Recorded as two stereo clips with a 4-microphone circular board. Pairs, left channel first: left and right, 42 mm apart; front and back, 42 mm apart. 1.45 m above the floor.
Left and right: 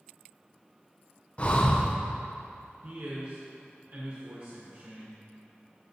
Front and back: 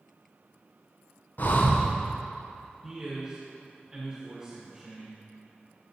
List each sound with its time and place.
1.4 s breathing: 35° left, 0.7 m
2.8 s a man speaking: 110° right, 1.4 m